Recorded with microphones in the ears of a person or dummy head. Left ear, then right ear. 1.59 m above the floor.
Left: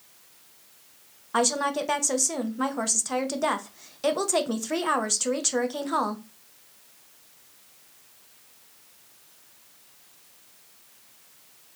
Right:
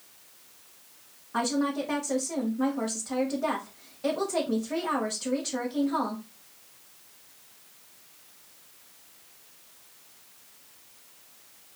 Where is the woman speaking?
70° left (ahead or behind), 0.7 m.